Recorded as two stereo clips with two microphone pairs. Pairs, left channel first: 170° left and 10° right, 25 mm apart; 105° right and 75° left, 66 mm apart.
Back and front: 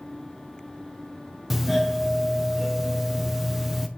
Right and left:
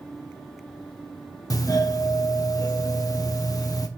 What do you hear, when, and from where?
1.5 s a doorbell: 90° right, 1.1 m